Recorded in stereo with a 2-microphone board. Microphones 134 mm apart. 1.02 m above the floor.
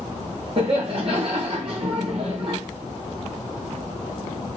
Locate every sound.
0.6 s laughter: 45° right (ahead or behind), 0.9 m